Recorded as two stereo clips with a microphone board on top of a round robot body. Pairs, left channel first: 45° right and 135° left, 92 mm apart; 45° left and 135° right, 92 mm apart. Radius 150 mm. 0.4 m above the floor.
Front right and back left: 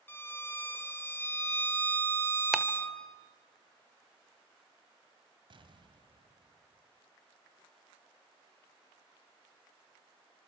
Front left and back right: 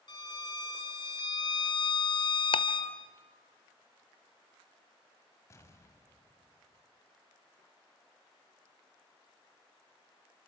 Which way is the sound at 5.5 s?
105° left.